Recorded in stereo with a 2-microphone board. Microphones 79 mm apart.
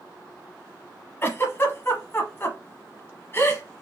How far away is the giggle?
About 0.8 m.